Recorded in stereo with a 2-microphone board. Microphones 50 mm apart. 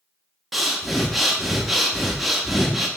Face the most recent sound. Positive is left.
turn(degrees=-5)  # may be behind; listen again after turning